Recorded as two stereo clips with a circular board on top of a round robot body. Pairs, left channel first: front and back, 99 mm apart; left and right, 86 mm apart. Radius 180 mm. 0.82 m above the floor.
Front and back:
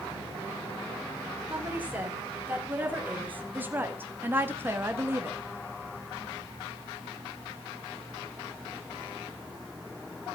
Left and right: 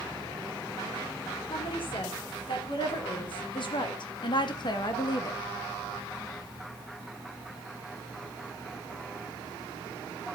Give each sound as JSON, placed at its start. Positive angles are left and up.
{"t": 1.5, "sound": "a woman speaking", "azimuth_deg": 105, "distance_m": 4.0}